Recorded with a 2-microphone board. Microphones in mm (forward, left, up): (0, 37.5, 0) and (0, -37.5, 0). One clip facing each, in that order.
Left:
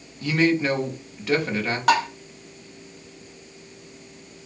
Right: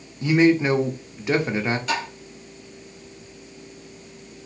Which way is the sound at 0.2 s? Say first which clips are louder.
Right 4 dB; 20° right (ahead or behind).